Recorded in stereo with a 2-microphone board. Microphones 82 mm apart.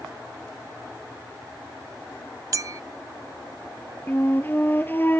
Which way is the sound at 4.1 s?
25° left (ahead or behind).